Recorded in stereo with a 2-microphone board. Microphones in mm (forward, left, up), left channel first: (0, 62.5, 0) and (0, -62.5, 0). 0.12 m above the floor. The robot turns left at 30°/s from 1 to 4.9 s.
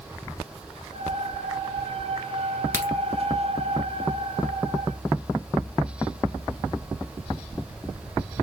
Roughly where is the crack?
Centre.